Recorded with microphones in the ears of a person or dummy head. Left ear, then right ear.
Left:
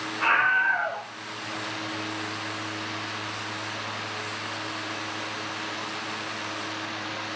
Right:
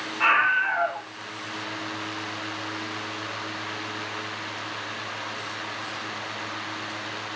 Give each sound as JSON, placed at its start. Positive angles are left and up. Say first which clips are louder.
{"t": 0.2, "sound": "a scream", "louder": "right 1 dB", "side_deg": -70, "distance_m": 4.0}